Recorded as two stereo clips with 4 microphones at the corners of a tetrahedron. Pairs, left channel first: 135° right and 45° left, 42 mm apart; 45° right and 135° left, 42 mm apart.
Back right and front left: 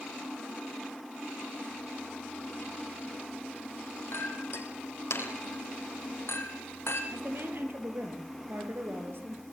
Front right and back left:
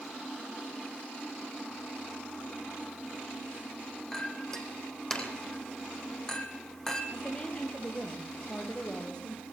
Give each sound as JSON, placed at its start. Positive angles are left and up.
{"t": 4.1, "sound": "a clink", "azimuth_deg": -125, "distance_m": 4.0}
{"t": 7.1, "sound": "a woman speaking", "azimuth_deg": 20, "distance_m": 5.0}